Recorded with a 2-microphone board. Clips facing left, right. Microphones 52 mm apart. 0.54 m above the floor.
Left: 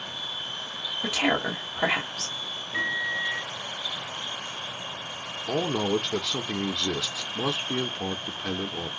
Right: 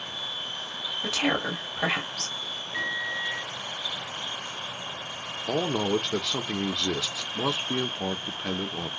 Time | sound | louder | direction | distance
1.0 | a woman speaking | left 1 dB | 10° left (ahead or behind) | 2 m
2.7 | a microwave | left 3 dB | 15° left (ahead or behind) | 0.9 m
5.5 | a man speaking | even | 10° right (ahead or behind) | 0.6 m